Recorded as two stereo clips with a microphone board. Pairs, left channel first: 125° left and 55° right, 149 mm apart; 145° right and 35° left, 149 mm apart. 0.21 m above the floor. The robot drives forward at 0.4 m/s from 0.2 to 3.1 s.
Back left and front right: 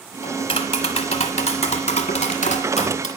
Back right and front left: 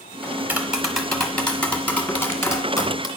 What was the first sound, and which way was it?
Tapping, 100° left.